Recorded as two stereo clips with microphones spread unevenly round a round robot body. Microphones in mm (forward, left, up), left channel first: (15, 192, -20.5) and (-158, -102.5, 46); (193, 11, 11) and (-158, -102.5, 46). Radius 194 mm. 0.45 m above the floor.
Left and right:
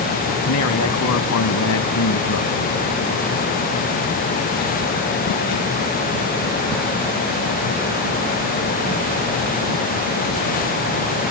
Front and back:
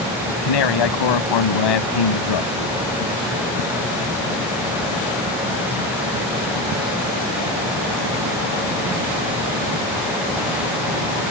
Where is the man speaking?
10° left.